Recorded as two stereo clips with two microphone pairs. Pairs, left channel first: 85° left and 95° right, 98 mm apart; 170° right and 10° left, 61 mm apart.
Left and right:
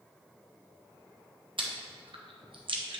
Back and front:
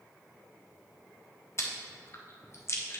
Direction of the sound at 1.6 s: 130° right.